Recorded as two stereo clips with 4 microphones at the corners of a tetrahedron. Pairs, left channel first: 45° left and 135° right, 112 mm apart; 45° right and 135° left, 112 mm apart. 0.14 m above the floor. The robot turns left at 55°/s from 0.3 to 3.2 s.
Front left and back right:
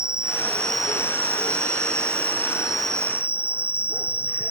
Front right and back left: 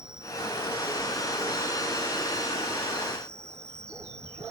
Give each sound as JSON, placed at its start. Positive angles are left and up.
{"t": 0.0, "sound": "an insect", "azimuth_deg": -55}